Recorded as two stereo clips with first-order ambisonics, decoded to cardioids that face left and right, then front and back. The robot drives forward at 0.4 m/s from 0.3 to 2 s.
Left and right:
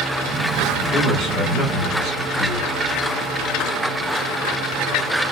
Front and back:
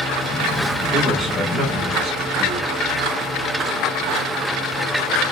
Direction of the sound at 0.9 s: 95° left.